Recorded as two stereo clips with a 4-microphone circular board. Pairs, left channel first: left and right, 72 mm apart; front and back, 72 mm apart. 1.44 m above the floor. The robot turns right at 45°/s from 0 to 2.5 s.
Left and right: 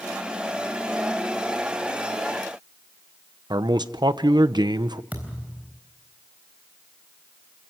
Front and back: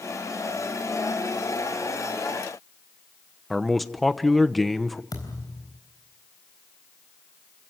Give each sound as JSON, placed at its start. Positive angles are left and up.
{"t": 3.5, "sound": "a man speaking", "azimuth_deg": -90, "distance_m": 1.0}
{"t": 5.1, "sound": "a thud", "azimuth_deg": -25, "distance_m": 4.0}